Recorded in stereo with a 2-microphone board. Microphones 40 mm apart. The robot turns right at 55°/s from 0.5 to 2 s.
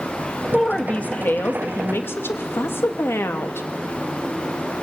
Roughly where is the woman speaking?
Ahead.